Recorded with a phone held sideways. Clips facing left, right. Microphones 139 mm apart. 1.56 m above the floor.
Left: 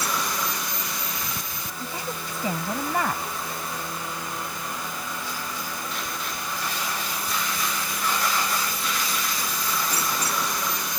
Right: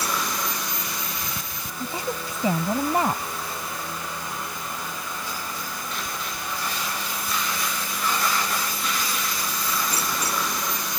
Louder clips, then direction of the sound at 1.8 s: Right 5 dB; 20° right (ahead or behind).